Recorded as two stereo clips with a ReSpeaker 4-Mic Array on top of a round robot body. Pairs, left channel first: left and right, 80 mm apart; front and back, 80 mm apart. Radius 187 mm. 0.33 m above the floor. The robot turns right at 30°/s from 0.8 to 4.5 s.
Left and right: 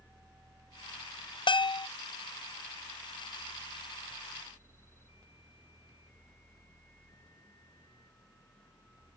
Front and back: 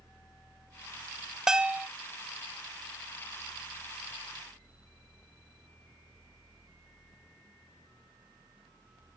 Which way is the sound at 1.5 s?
95° left.